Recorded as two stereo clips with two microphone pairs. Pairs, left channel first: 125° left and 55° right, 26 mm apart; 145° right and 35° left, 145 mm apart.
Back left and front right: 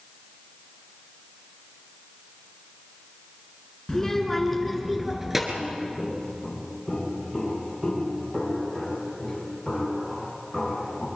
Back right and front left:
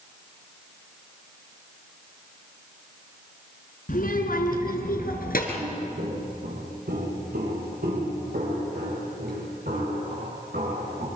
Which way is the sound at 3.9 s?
160° right.